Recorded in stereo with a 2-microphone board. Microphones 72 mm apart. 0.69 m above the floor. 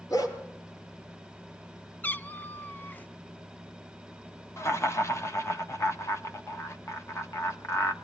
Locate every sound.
0.1 s a dog barking: 55° left (ahead or behind), 3.5 m
2.0 s a cat meowing: 25° left (ahead or behind), 0.6 m
4.6 s laughter: 40° left (ahead or behind), 1.5 m